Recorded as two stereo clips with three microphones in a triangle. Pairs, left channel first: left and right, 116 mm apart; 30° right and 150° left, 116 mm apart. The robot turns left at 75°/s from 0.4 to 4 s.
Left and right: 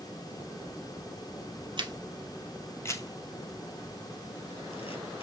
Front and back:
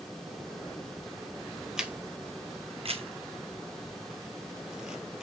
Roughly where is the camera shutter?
Behind right.